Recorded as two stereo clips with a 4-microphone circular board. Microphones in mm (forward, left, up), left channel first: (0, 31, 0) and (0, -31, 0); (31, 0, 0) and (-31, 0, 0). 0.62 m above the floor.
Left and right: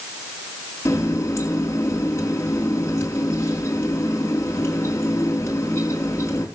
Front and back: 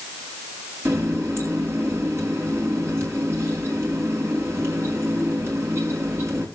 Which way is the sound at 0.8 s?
135° left.